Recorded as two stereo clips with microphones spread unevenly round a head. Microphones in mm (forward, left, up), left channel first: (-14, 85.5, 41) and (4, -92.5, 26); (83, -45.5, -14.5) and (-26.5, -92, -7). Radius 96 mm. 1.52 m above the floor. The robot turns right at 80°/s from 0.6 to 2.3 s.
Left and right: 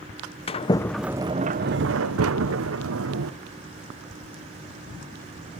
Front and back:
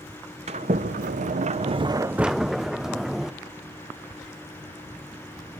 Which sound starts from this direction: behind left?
A sliding door, at 0.5 s.